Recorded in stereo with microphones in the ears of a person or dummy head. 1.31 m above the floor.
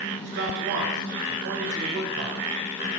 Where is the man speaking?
55° right (ahead or behind), 0.8 m.